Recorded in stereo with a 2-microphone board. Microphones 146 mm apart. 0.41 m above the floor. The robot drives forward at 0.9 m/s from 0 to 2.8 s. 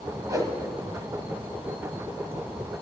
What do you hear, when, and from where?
0.3 s a whoosh: 20° right (ahead or behind), 1.7 m; by 0.5 s 25° right (ahead or behind), 1.5 m